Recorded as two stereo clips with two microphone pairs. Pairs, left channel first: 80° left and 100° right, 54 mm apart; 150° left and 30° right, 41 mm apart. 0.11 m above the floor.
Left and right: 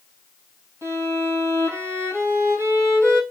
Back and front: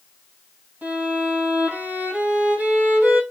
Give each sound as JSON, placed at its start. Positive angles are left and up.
{"t": 0.8, "sound": "a violin", "azimuth_deg": -65, "distance_m": 1.8}